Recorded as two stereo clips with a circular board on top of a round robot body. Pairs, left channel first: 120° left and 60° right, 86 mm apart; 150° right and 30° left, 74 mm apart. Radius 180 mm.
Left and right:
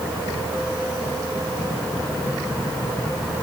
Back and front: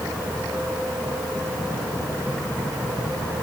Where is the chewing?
I don't hear chewing.